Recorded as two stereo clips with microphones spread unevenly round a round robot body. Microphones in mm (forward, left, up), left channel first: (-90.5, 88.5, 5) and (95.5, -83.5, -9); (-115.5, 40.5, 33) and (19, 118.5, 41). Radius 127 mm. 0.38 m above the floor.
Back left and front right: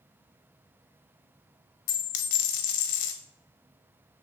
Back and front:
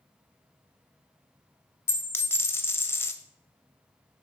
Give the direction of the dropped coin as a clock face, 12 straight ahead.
8 o'clock.